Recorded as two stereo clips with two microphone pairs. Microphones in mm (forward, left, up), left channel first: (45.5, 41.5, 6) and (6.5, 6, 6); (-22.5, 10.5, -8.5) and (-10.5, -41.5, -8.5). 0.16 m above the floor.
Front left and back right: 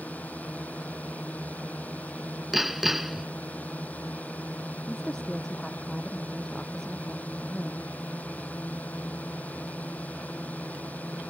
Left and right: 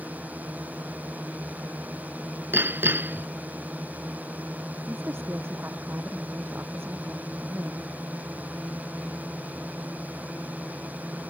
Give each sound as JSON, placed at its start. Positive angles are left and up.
{"t": 0.0, "sound": "a drone", "azimuth_deg": -15}
{"t": 2.5, "sound": "hammering", "azimuth_deg": -50}
{"t": 4.9, "sound": "a woman speaking", "azimuth_deg": -35}